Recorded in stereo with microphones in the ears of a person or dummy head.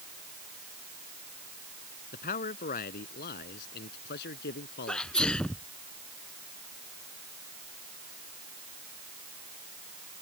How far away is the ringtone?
No ringtone in this recording.